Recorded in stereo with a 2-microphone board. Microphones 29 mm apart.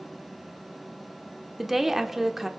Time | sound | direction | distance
1.6 | a woman speaking | 5° right (ahead or behind) | 0.8 m